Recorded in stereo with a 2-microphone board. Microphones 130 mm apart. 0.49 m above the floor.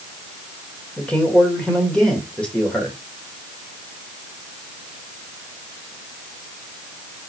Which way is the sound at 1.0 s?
10° left (ahead or behind).